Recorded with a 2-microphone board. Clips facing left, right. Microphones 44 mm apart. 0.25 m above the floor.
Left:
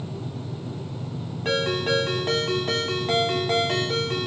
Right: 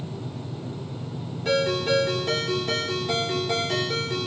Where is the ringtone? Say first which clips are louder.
Right 1 dB; 45° left (ahead or behind), 1.0 m.